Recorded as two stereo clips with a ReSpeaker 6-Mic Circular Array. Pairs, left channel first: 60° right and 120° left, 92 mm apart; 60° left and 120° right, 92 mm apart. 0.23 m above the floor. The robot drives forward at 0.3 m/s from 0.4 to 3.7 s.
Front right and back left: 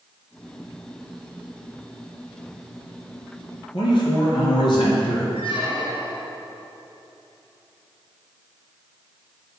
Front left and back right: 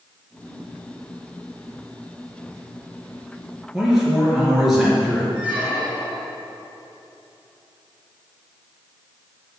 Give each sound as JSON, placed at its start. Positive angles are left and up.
{"t": 3.7, "sound": "a man speaking", "azimuth_deg": -35, "distance_m": 4.0}
{"t": 5.3, "sound": "a squeak", "azimuth_deg": -40, "distance_m": 3.5}